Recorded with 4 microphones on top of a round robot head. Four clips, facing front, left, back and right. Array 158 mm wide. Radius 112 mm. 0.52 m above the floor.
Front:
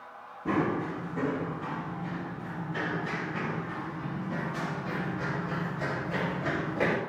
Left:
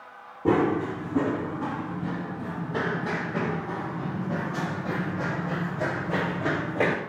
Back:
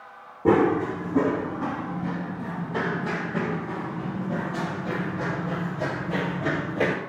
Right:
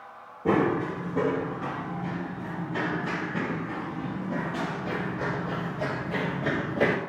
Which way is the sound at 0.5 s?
155° left.